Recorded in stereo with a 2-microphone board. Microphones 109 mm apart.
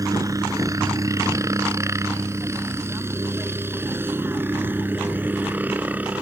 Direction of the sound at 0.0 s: 30° right (ahead or behind).